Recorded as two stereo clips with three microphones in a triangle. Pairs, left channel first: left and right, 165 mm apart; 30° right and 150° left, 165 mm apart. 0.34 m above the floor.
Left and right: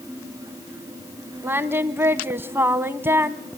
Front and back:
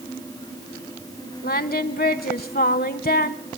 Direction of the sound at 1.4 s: 10° right.